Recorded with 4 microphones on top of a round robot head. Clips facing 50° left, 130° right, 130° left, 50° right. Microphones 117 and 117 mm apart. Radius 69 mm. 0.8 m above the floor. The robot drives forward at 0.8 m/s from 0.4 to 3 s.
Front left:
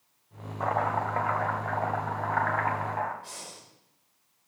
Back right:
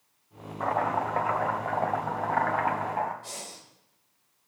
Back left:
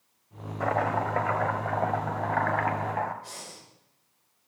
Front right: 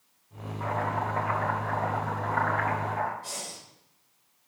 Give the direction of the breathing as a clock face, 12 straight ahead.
3 o'clock.